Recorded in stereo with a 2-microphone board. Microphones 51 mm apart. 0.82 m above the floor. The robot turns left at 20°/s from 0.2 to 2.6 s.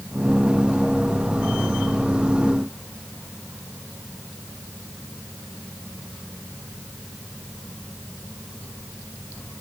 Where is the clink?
No clink in this recording.